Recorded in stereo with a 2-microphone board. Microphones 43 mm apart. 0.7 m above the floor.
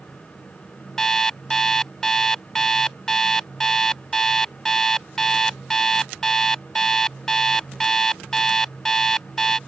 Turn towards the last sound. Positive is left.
turn(degrees=10)  # may be behind; listen again after turning